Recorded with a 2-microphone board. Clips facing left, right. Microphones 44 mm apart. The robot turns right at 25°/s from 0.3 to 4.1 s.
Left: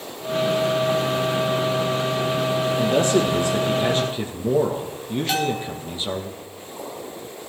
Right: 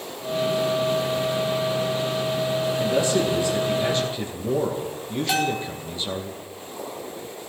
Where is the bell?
5° right (ahead or behind), 1.7 m.